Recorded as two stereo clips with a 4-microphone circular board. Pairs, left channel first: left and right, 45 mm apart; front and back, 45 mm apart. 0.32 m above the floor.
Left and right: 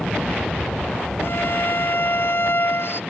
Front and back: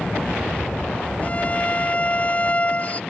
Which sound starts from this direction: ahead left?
A violin, at 1.2 s.